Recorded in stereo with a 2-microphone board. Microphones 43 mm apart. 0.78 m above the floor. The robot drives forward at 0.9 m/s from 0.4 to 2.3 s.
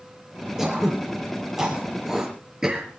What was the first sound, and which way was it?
Throat clearing, 10° right (ahead or behind).